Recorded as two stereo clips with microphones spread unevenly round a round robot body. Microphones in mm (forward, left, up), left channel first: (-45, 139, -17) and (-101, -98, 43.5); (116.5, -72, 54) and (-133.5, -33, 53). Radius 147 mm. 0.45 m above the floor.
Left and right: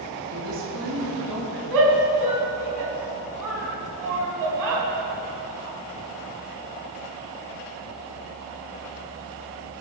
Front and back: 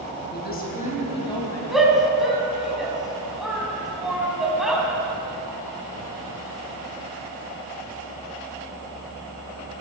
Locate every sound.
0.3 s a woman speaking: 55° right, 3.5 m; by 1.6 s 90° right, 4 m
1.7 s a shout: 100° right, 4 m